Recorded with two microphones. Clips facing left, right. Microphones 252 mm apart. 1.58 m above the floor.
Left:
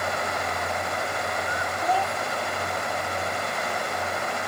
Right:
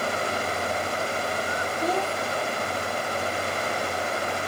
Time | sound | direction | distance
1.8 | a child speaking | 45° right (ahead or behind) | ?